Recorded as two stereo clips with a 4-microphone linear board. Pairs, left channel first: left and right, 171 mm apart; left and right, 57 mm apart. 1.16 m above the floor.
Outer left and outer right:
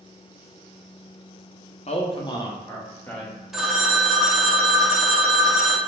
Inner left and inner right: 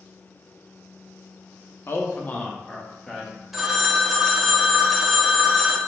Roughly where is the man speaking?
Left.